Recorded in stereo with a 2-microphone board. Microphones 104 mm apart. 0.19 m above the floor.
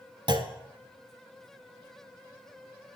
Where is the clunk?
45° right (ahead or behind), 0.8 m.